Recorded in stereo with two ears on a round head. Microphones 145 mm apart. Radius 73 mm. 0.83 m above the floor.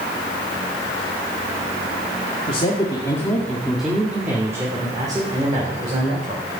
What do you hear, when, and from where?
2.5 s a man speaking: 35° left (ahead or behind), 1.9 m; by 6.4 s 40° right (ahead or behind), 3.5 m